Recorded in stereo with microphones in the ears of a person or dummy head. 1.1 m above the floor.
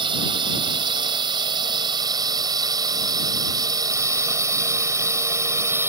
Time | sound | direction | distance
0.0 | a drone | 25° right (ahead or behind) | ?